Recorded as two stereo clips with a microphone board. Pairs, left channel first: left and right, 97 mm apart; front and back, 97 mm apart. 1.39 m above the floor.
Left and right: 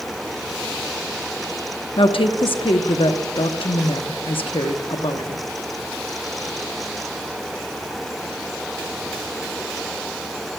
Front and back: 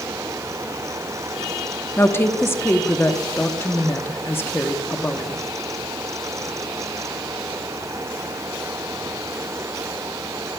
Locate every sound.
2.0 s a woman speaking: 65° left, 0.9 m